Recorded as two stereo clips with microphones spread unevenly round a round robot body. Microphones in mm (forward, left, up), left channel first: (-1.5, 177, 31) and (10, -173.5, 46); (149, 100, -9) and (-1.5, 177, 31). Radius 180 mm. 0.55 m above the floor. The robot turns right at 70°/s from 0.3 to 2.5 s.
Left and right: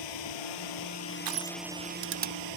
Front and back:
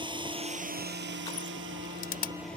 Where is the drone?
90° left; by 2.6 s 115° right.